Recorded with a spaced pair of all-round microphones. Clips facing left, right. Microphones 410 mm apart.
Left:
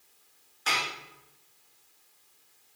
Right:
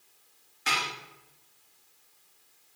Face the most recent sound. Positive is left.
turn(degrees=-35)  # may be behind; listen again after turning